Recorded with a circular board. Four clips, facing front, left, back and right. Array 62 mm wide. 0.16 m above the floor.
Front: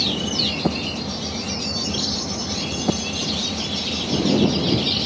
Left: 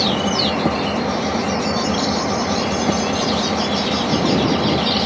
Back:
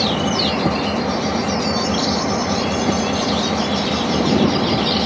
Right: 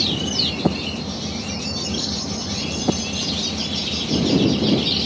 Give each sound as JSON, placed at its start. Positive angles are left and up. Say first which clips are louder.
{"t": 0.0, "sound": "an engine running", "louder": "left 7 dB, back 7 dB", "azimuth_deg": 130}